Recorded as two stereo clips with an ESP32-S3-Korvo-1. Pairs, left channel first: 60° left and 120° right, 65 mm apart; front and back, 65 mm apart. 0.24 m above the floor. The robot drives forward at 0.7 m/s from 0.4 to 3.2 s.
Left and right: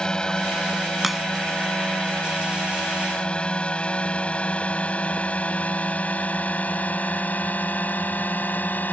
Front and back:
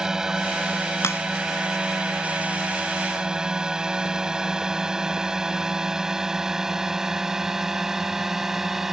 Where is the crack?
30° right; by 1.2 s 35° right.